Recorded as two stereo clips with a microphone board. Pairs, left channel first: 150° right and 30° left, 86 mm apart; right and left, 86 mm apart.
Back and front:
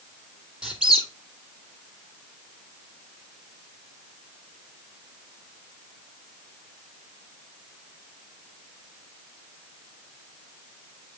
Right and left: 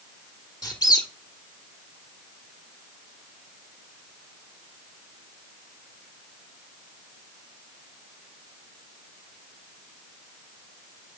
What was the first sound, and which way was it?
A squeak, 50° right.